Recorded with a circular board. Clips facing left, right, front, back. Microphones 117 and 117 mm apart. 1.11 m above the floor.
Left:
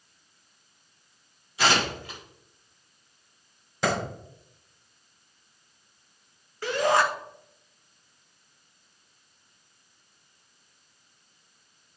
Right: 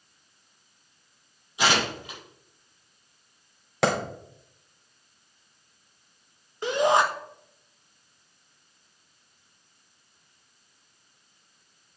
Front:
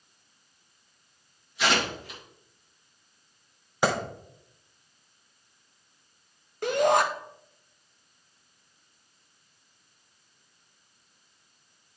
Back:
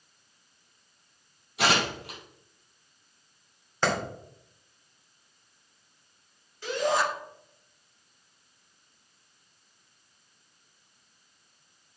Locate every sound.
1.6 s tearing paper: 160° right, 6 m
3.8 s a clap: 75° right, 3 m
6.6 s a shout: 20° right, 1.6 m